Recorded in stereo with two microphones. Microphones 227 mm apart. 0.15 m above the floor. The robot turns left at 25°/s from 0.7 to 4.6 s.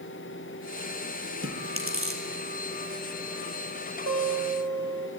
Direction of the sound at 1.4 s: 60° right (ahead or behind).